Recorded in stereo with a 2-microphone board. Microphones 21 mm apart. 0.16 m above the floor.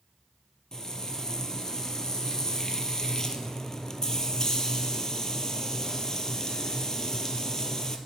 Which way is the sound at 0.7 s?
25° left (ahead or behind).